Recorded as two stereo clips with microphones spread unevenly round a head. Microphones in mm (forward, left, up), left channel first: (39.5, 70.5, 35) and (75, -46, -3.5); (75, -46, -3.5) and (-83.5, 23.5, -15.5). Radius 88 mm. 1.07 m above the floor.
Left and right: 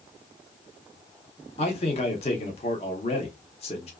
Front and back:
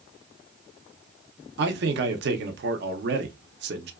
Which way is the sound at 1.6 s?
165° left.